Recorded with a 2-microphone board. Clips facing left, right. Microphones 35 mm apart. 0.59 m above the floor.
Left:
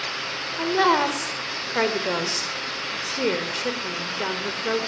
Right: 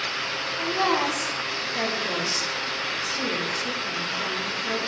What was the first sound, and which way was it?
A woman speaking, 65° left (ahead or behind).